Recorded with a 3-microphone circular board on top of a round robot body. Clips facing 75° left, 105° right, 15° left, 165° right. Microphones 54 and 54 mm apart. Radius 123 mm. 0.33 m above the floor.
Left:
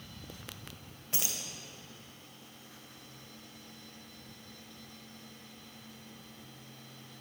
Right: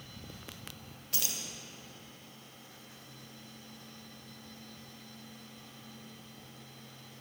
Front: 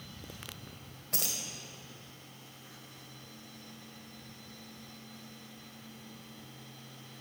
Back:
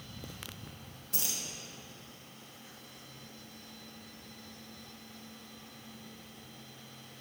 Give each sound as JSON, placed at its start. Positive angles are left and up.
{"t": 1.1, "sound": "keys jangling", "azimuth_deg": 10, "distance_m": 1.7}